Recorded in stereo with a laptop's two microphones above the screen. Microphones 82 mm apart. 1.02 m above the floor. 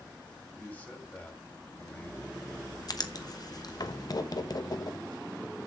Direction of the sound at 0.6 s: 20° left (ahead or behind).